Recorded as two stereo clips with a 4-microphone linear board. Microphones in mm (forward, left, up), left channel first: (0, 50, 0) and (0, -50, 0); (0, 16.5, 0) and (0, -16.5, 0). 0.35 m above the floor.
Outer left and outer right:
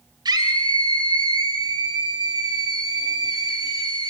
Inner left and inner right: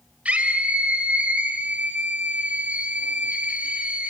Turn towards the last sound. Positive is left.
turn(degrees=-40)  # may be behind; listen again after turning